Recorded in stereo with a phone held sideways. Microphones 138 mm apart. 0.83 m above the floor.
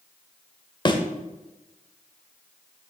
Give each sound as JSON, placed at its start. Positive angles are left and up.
{"t": 0.8, "sound": "a thud", "side_deg": 35, "distance_m": 0.9}